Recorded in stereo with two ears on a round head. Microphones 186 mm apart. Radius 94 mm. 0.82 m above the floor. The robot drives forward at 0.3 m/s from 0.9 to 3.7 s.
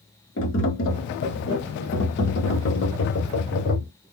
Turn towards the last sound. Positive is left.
turn(degrees=60)  # may be behind; listen again after turning